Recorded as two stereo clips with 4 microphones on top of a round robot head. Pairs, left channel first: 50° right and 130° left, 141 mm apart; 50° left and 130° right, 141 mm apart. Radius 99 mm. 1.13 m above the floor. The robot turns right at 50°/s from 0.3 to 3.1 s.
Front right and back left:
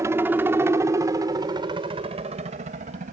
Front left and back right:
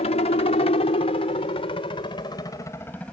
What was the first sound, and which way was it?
A helicopter, 65° left.